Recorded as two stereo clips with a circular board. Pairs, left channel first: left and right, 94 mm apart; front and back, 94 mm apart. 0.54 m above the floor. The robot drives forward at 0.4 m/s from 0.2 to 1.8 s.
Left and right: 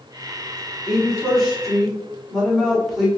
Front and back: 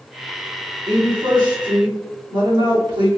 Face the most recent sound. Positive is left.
turn(degrees=180)